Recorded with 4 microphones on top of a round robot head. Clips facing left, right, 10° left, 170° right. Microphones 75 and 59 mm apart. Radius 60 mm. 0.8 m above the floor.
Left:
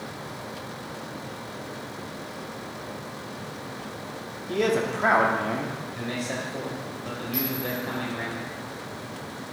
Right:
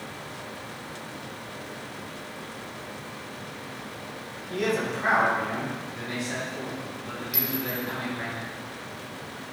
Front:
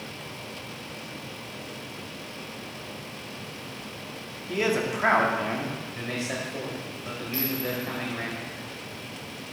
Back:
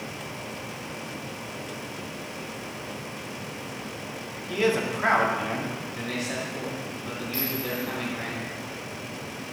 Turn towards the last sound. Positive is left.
turn(degrees=-75)